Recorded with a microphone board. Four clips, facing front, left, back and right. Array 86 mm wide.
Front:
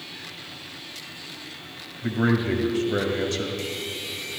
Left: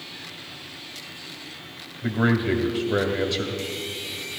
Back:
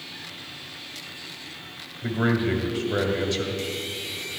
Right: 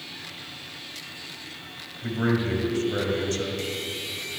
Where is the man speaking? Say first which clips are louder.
Left 3 dB, front 1 dB; 105° left, 1.3 m.